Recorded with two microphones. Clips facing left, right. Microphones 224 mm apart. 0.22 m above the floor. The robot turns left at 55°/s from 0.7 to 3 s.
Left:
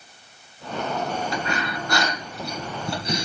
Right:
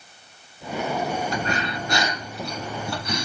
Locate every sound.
1.3 s breathing: 120° right, 2 m; by 3.2 s 145° left, 2 m